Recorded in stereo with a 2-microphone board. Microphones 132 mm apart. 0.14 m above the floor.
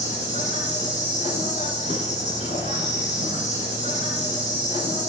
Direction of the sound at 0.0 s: 65° left (ahead or behind).